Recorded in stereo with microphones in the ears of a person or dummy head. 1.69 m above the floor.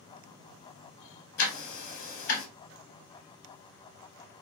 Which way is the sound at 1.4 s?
55° left (ahead or behind).